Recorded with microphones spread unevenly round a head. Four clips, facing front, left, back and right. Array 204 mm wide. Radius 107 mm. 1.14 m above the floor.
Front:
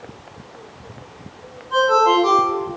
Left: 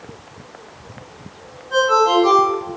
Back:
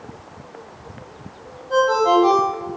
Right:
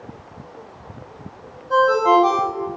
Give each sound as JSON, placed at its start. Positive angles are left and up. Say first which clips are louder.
{"t": 1.7, "sound": "a ringtone", "louder": "even, front 1 dB", "azimuth_deg": -135, "distance_m": 3.0}